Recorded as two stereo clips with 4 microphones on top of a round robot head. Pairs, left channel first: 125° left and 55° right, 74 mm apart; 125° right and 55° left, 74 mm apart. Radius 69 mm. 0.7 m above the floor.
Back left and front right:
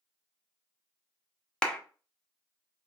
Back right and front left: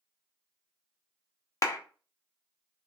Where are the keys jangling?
No keys jangling in this recording.